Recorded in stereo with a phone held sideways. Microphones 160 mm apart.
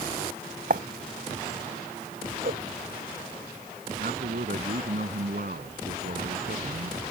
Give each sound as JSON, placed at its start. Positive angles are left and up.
{"t": 0.7, "sound": "writing", "side_deg": -65}
{"t": 2.4, "sound": "a whoosh", "side_deg": -85}
{"t": 4.0, "sound": "a man speaking", "side_deg": -65}